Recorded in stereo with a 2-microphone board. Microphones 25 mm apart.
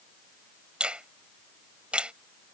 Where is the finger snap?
50° right (ahead or behind).